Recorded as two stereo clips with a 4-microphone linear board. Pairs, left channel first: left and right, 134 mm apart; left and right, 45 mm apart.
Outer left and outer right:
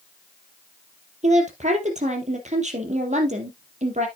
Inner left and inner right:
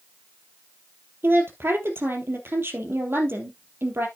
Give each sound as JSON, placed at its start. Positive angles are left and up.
{"t": 1.2, "sound": "a woman speaking", "side_deg": -60, "distance_m": 3.0}